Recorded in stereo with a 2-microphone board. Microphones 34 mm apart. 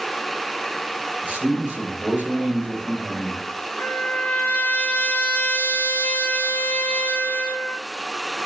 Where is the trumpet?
80° left, 1.1 m.